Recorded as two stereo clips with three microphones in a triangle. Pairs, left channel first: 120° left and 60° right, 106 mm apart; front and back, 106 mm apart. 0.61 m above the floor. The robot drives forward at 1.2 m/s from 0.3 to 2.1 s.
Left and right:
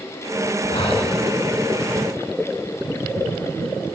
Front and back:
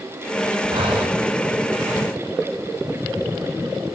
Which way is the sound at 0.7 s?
145° left.